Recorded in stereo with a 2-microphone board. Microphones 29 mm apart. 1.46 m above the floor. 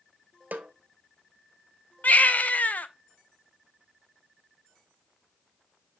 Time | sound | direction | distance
0.5 | a snare drum | 75° right (ahead or behind) | 0.8 m
2.0 | a baby crying | 65° left (ahead or behind) | 0.5 m